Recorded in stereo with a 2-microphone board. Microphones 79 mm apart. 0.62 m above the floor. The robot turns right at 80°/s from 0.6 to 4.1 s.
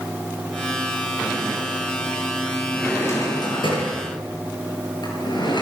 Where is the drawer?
5° left (ahead or behind), 8 m; by 5.6 s 65° left (ahead or behind), 8 m.